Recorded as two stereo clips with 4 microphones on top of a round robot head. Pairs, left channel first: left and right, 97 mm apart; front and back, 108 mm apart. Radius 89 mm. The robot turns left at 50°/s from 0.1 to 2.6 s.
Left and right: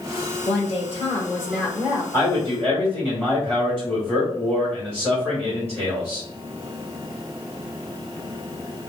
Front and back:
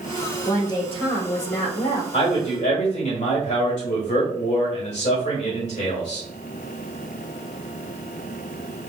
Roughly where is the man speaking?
Ahead.